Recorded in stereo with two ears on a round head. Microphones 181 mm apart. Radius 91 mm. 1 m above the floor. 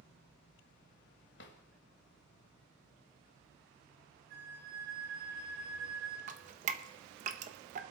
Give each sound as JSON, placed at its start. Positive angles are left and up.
{"t": 1.4, "sound": "a drawer", "side_deg": 60, "distance_m": 1.3}
{"t": 4.3, "sound": "a flute", "side_deg": -70, "distance_m": 8.0}
{"t": 6.3, "sound": "dripping", "side_deg": -35, "distance_m": 1.0}